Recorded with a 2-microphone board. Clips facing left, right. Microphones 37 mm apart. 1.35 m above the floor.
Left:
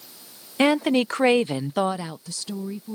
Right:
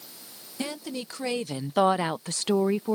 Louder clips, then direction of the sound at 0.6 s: Left 14 dB; 70° left (ahead or behind).